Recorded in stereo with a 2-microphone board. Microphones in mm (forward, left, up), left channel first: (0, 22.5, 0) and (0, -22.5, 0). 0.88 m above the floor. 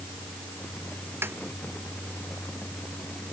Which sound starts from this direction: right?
A snare drum, at 1.2 s.